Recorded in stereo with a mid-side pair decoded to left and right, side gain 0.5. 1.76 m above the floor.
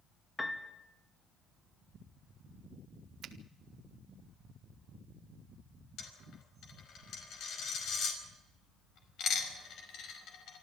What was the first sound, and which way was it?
A piano, 20° left.